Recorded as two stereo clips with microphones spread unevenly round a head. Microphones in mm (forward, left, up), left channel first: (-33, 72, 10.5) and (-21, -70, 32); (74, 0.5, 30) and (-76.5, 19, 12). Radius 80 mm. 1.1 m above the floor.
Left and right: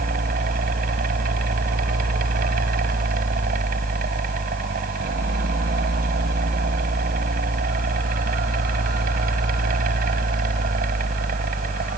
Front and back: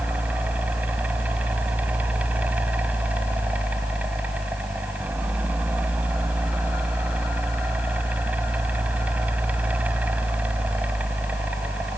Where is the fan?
105° right.